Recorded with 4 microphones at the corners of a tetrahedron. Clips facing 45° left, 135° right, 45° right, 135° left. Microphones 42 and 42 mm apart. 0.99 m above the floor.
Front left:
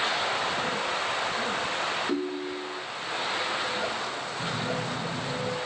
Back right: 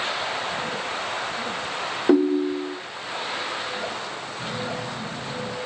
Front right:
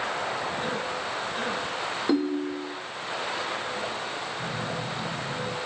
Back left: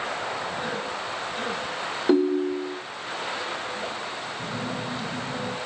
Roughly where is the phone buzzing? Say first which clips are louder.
Back right 1 dB, back left 2 dB; left.